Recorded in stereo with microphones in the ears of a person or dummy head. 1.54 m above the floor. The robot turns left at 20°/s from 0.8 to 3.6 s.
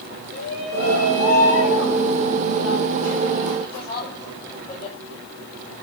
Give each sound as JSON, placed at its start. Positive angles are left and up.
{"t": 0.3, "sound": "a shout", "azimuth_deg": 125, "distance_m": 4.5}